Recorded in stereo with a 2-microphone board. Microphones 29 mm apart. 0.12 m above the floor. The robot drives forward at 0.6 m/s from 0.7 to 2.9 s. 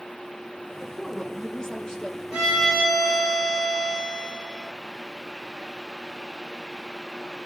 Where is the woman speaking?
25° left (ahead or behind), 5.5 m; by 2.2 s 20° left (ahead or behind), 6.5 m.